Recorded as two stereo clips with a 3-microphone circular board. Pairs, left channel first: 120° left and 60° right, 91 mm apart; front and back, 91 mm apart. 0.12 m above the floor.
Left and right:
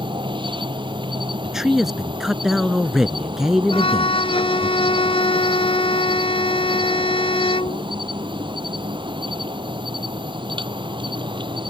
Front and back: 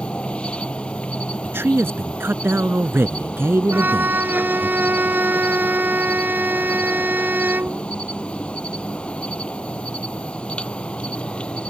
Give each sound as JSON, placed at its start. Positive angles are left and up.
{"t": 0.0, "sound": "an insect", "azimuth_deg": -75}
{"t": 1.4, "sound": "a man speaking", "azimuth_deg": -140}
{"t": 3.7, "sound": "a violin", "azimuth_deg": 110}